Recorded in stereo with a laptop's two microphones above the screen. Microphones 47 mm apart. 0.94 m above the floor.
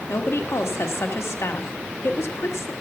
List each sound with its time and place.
0.1 s a woman speaking: 70° left (ahead or behind), 1.2 m